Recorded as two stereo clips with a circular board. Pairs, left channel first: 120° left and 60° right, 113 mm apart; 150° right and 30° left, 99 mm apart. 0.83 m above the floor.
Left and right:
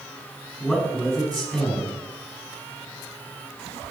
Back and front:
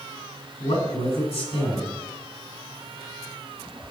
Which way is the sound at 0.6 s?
150° right.